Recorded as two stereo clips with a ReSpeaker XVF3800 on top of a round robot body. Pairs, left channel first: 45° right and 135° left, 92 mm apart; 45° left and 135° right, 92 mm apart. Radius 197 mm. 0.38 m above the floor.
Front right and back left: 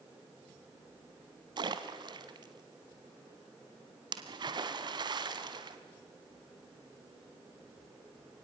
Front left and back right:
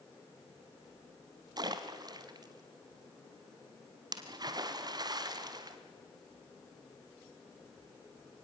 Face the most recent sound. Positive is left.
turn(degrees=175)